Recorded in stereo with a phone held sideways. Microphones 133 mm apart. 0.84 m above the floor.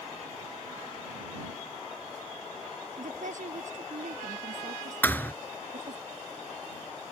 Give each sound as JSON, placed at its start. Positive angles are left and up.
{"t": 3.0, "sound": "a woman speaking", "side_deg": -65}
{"t": 5.0, "sound": "a thud", "side_deg": 15}